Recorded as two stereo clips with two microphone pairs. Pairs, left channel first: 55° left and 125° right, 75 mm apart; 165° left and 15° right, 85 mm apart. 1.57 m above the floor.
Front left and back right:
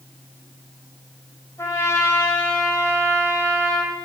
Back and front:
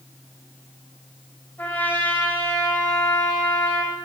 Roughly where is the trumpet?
Left.